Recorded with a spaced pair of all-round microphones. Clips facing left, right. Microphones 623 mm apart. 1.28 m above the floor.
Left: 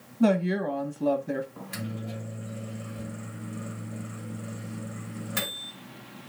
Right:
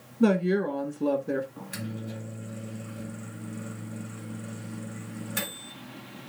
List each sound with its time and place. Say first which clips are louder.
0.2 s a woman speaking: right 1 dB; 5° left (ahead or behind), 1.0 m
1.6 s a microwave: even; 30° left (ahead or behind), 1.5 m